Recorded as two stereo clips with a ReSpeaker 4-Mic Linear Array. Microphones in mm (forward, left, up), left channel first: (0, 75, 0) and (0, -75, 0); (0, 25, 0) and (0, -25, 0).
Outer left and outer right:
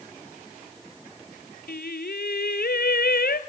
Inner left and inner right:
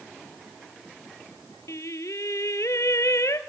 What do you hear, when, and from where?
1.7 s singing: 85° left, 1.2 m